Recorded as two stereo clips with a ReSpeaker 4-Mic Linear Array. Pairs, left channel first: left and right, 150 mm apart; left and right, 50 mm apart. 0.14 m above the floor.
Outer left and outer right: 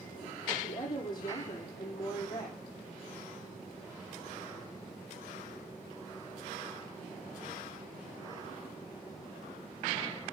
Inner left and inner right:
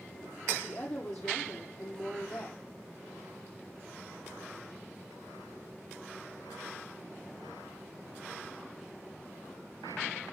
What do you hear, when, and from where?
0.6 s a woman speaking: 25° left (ahead or behind), 5.5 m